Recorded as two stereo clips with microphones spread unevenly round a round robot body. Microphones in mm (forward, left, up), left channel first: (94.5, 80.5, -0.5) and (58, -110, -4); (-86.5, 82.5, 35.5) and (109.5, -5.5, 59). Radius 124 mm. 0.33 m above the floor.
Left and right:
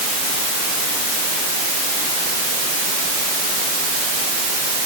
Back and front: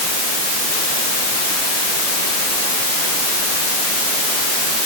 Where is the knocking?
No knocking in this recording.